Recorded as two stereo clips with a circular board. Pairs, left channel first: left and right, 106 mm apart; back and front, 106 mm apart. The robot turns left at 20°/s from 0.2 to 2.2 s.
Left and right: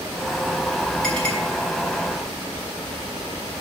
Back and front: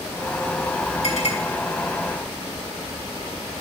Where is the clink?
170° left, 4.5 m; by 1.4 s 165° left, 4.5 m.